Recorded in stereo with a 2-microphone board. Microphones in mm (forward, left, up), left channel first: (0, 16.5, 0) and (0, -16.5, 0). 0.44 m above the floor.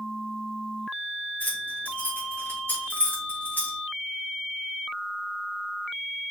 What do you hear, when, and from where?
1.4 s keys jangling: 65° left (ahead or behind), 3 m